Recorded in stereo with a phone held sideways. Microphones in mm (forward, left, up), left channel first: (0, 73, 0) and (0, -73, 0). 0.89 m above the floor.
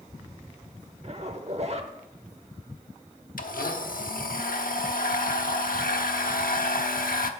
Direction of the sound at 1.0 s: 50° right (ahead or behind).